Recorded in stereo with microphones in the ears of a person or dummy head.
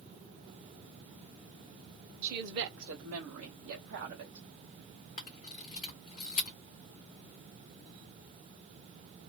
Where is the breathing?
No breathing in this recording.